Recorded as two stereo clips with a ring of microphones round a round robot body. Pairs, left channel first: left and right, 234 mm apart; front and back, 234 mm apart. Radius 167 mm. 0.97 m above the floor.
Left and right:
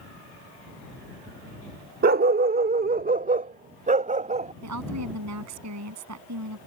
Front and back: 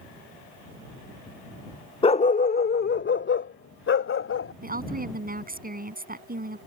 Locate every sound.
2.0 s a dog barking: 60° right; by 4.5 s 30° right
4.6 s a woman speaking: 130° right